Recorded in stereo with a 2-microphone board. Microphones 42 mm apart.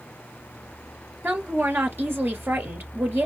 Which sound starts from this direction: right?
A woman speaking, at 1.2 s.